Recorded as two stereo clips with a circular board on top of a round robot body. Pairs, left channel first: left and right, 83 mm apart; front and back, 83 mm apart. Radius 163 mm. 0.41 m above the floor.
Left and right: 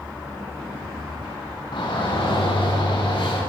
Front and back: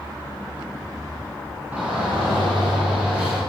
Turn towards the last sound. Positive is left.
turn(degrees=105)